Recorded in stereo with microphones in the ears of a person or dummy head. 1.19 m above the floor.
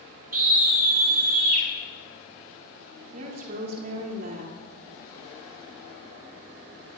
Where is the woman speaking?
50° right (ahead or behind), 3 m.